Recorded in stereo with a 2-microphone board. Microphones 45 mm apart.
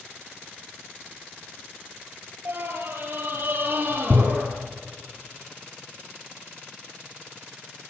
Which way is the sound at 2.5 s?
50° right (ahead or behind).